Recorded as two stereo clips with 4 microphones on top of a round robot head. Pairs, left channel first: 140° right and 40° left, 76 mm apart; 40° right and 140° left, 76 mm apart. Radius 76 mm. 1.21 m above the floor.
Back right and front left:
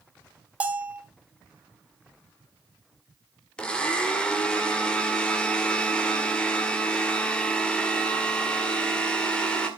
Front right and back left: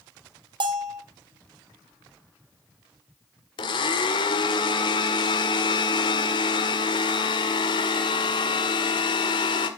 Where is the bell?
115° left, 1.6 m.